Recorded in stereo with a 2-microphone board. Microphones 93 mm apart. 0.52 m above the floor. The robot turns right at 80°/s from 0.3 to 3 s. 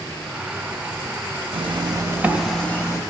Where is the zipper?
75° right, 0.5 m; by 3.0 s 40° left, 0.5 m.